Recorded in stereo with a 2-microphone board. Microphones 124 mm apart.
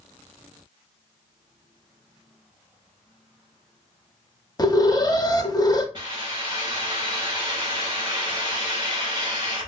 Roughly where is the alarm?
Left.